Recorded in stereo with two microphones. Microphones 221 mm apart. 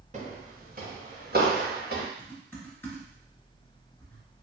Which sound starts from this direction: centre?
Typing on a keyboard, at 2.2 s.